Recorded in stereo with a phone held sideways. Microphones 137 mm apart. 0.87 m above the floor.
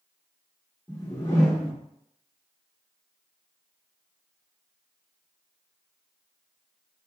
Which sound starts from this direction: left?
A whoosh, at 0.9 s.